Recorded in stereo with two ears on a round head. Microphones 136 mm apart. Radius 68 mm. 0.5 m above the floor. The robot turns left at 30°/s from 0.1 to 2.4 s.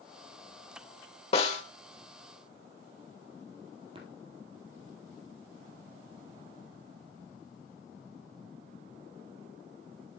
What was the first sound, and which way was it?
A snare drum, 40° left (ahead or behind).